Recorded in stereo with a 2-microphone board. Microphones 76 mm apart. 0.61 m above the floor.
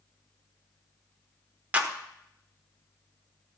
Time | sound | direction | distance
1.7 | a clap | 20° right (ahead or behind) | 1.4 m